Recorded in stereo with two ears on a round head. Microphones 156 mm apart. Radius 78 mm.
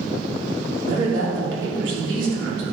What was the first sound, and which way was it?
A woman speaking, 85° right.